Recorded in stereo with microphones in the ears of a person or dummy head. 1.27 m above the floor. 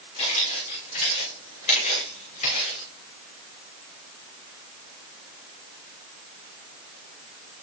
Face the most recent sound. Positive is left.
turn(degrees=40)  # may be behind; listen again after turning